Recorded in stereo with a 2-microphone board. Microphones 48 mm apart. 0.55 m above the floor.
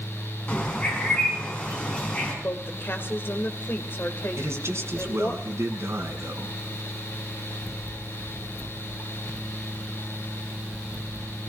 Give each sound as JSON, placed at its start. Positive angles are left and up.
{"t": 0.5, "sound": "a bird", "side_deg": 25, "distance_m": 5.0}
{"t": 2.4, "sound": "a woman speaking", "side_deg": 50, "distance_m": 2.0}
{"t": 4.4, "sound": "a man speaking", "side_deg": -70, "distance_m": 4.0}